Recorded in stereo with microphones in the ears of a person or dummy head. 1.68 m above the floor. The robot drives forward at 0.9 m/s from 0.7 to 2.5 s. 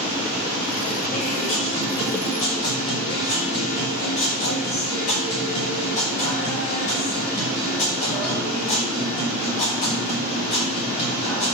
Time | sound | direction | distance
1.1 | a guitar | 45° left (ahead or behind) | 5 m